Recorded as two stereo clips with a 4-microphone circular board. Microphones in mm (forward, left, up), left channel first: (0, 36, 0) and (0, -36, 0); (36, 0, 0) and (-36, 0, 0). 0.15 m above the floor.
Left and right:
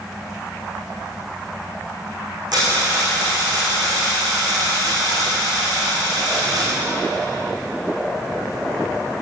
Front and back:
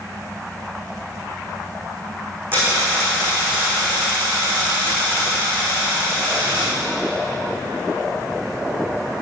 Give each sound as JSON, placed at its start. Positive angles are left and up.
{"t": 2.5, "sound": "a dropped coin", "azimuth_deg": -120, "distance_m": 4.5}